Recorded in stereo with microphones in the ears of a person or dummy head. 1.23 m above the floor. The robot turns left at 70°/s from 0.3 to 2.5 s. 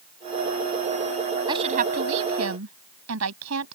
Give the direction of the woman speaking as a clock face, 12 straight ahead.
12 o'clock.